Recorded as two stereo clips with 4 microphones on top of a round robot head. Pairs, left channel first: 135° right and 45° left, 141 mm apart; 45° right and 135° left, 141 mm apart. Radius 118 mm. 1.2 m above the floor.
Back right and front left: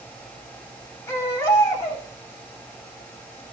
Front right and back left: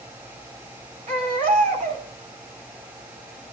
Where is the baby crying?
160° left, 4 m.